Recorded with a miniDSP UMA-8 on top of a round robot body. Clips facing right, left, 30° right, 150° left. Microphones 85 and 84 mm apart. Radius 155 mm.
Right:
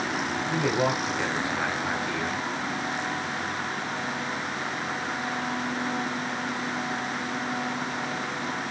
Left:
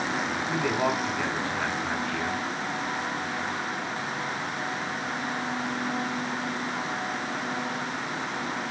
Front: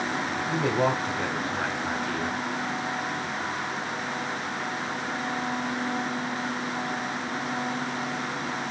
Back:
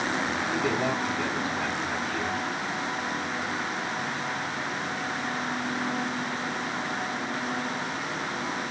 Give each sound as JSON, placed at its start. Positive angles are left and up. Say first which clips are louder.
{"t": 0.5, "sound": "a man speaking", "louder": "right 1 dB, front 4 dB", "azimuth_deg": -15, "distance_m": 1.6}